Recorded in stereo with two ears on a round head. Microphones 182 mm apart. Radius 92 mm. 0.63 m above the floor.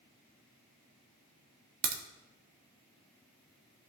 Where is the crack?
40° right (ahead or behind), 1.1 m.